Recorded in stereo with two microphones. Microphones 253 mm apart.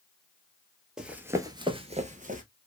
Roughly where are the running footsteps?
Centre.